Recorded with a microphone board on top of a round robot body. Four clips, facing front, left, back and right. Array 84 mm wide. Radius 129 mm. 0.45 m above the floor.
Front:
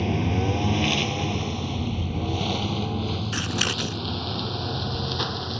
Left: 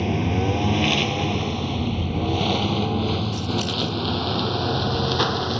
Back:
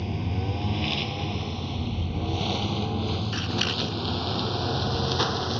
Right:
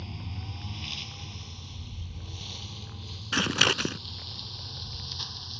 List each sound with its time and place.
0.0 s a lawn mower: 60° left; by 5.6 s 105° left
3.3 s scissors: 75° right